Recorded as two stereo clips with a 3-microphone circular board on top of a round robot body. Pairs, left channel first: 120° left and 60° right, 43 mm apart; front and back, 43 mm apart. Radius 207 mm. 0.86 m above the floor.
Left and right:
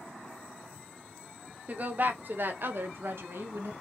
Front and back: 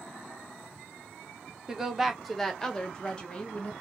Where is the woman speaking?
105° right, 1.5 m; by 3.7 s 60° right, 1.8 m.